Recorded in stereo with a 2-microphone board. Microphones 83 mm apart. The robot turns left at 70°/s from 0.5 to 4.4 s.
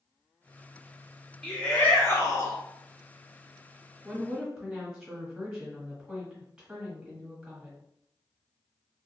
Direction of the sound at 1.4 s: 170° left.